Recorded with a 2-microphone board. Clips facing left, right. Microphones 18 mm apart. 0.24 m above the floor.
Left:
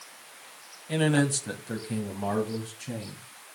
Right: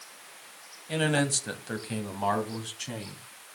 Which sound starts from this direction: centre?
A man speaking, at 0.9 s.